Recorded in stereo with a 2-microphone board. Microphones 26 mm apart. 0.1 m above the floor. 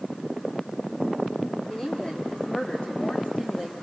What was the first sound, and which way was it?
A woman speaking, 30° left (ahead or behind).